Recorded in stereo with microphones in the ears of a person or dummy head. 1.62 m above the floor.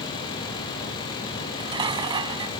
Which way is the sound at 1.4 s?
30° right (ahead or behind).